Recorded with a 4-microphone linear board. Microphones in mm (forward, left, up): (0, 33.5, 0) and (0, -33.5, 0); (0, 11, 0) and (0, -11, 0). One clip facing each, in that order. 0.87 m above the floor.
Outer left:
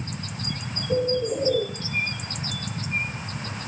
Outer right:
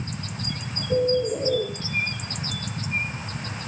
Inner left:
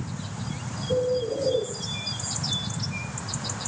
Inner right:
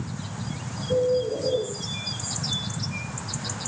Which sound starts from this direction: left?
A bird, at 0.9 s.